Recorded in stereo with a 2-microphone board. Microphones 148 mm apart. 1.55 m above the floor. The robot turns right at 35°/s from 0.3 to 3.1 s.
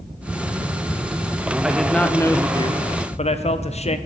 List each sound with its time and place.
1.6 s a man speaking: 5° right, 0.6 m; by 4.0 s 45° left, 0.6 m